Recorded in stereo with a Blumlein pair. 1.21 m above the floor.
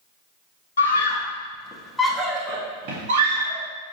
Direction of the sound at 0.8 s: 70° left.